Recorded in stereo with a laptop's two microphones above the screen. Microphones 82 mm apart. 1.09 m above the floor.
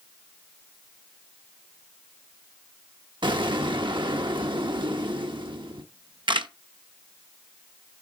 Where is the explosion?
75° right (ahead or behind), 1.1 m.